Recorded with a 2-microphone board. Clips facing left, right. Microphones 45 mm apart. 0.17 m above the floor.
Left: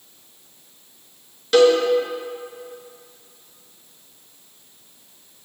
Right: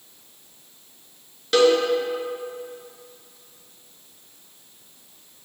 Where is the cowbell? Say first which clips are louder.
Left 3 dB; centre (ahead or behind), 1.3 m.